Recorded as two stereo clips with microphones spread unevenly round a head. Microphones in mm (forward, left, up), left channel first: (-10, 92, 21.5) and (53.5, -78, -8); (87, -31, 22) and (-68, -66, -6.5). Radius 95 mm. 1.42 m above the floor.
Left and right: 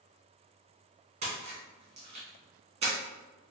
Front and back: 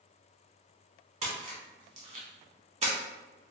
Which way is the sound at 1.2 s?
125° right.